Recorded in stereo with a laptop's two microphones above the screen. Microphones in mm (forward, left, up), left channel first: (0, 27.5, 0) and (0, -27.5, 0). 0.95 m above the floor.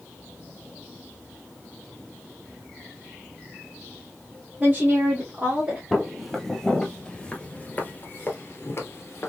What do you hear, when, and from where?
4.6 s a woman speaking: 30° right (ahead or behind), 1.1 m; by 5.8 s 25° right (ahead or behind), 2.0 m
5.9 s footsteps: centre (ahead or behind), 1.8 m; by 9.3 s 50° left (ahead or behind), 1.4 m